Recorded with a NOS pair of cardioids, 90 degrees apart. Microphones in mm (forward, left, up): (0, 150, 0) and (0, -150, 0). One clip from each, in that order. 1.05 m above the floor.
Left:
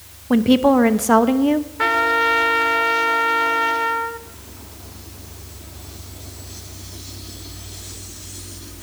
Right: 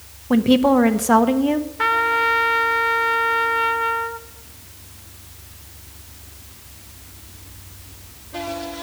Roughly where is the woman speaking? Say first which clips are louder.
Left 1 dB; ahead.